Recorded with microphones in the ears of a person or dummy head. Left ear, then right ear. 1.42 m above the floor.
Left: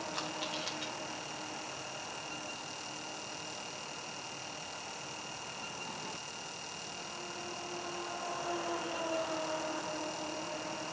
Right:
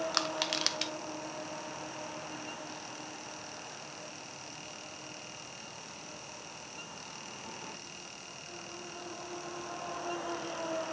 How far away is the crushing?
About 0.8 m.